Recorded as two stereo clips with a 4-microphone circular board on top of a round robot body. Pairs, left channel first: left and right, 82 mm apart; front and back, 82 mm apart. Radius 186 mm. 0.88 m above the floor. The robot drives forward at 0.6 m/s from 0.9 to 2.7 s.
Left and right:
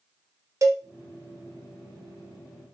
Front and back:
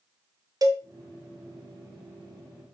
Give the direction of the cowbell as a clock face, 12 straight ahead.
5 o'clock.